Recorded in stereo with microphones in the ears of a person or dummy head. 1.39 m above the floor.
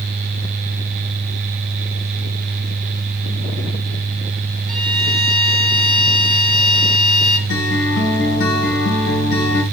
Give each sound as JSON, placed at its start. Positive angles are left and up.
{"t": 4.7, "sound": "a violin", "side_deg": 0, "distance_m": 1.8}
{"t": 7.5, "sound": "a guitar", "side_deg": 75, "distance_m": 4.0}